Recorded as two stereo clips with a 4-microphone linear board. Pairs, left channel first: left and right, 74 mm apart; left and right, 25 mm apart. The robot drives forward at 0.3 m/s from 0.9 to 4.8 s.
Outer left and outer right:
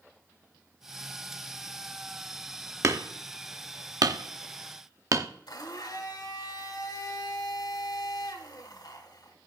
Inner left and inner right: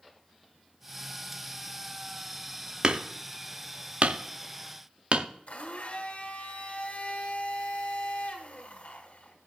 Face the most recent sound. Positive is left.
turn(degrees=65)  # may be behind; listen again after turning